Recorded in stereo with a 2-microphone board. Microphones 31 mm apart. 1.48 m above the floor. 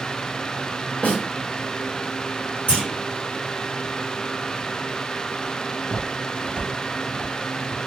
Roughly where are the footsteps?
Left.